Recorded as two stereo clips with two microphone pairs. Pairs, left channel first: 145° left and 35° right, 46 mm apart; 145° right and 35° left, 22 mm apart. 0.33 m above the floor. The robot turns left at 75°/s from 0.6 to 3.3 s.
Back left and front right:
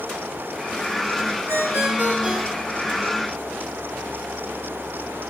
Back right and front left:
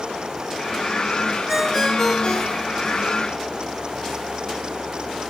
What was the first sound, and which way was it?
A ringtone, 45° right.